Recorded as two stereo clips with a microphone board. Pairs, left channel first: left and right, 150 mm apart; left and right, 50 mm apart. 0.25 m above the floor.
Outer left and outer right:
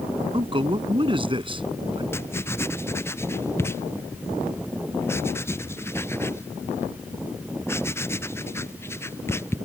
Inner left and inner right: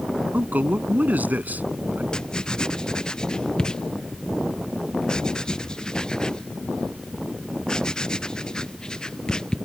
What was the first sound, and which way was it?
A man speaking, 35° right (ahead or behind).